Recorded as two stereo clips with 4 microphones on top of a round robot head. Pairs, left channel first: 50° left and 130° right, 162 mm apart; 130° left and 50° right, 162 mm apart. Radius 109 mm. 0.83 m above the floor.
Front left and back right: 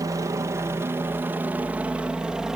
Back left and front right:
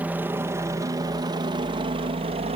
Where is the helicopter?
110° right; by 2.6 s 45° right.